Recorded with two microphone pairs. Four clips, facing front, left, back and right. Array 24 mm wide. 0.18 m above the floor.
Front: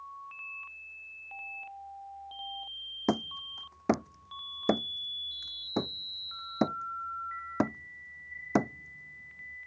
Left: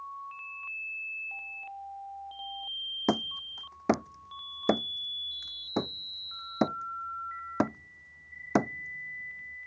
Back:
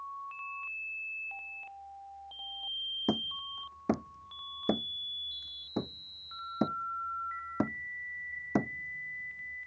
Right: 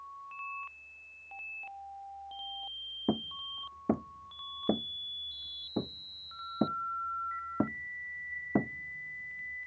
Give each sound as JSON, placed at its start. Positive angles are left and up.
{"t": 3.1, "sound": "hammering", "azimuth_deg": 65}